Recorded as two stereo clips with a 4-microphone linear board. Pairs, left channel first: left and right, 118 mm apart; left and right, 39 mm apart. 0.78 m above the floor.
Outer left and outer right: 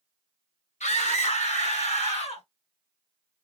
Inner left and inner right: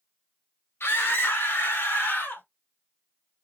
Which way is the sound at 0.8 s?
80° left.